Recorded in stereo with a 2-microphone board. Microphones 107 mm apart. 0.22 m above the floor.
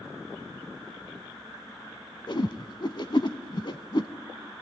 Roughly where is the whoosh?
Left.